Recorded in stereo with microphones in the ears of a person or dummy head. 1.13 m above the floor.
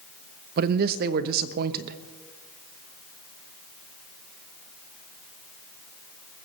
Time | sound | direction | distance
0.6 | a man speaking | 55° right (ahead or behind) | 0.9 m